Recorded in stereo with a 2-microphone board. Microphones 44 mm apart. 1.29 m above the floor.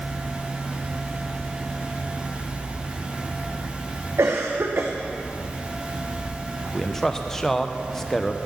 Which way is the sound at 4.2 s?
80° right.